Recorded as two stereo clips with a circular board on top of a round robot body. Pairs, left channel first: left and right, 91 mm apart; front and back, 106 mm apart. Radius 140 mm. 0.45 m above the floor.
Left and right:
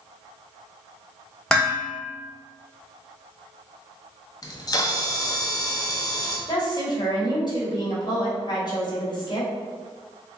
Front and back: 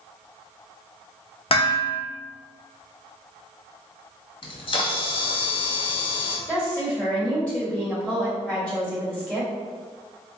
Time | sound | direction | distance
1.5 | dishes clattering | 10° left | 1.0 m
4.4 | a camera shutter | 40° left | 0.6 m
6.5 | a woman speaking | 75° left | 1.7 m